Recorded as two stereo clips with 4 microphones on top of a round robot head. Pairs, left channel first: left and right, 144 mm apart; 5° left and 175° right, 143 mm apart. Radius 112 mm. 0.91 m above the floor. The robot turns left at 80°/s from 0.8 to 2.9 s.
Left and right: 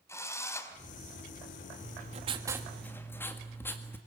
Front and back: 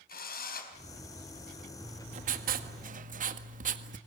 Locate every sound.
0.1 s a drill: 20° left, 4.5 m
1.8 s writing: 105° right, 1.7 m; by 4.0 s 165° left, 1.7 m